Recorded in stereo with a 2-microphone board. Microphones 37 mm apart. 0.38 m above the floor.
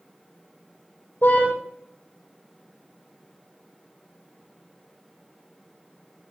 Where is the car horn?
55° left (ahead or behind), 6 m.